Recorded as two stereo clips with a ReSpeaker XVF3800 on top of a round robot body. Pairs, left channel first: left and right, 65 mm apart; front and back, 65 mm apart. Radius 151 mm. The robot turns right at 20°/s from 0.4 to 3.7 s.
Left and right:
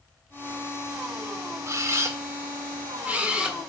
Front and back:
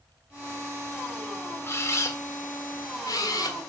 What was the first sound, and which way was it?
A camera shutter, 50° right.